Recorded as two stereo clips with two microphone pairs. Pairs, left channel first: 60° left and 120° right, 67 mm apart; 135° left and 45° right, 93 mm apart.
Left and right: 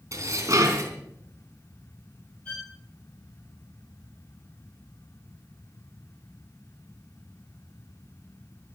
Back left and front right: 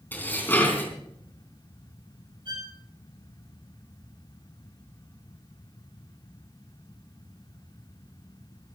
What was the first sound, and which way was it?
Dishes clattering, 160° right.